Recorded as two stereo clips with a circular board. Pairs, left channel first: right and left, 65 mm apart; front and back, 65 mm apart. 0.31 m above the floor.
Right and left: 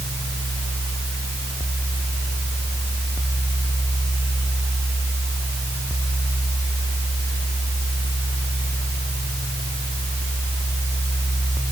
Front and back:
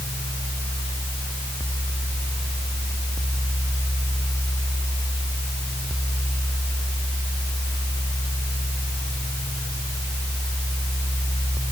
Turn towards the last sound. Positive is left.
No sound to turn to.